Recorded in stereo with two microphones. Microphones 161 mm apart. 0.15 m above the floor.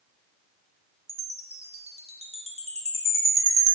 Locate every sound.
1.1 s a chime: 45° right (ahead or behind), 0.5 m